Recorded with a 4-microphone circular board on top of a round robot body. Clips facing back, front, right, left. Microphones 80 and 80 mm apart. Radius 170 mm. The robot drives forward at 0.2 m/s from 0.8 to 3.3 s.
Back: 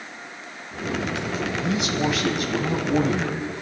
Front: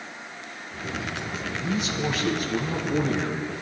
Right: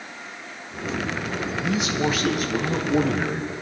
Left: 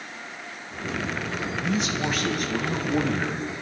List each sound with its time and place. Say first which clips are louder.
1.6 s a man speaking: back 3 dB, right 3 dB; 175° right, 2.5 m